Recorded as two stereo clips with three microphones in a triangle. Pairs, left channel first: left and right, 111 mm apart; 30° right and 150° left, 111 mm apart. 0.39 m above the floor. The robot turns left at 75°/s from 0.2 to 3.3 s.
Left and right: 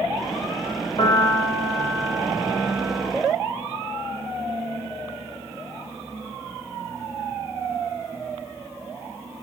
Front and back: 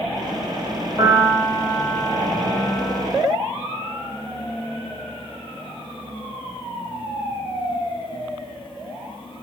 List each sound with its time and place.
1.0 s a piano: 110° left, 1.3 m; by 3.0 s 45° right, 1.3 m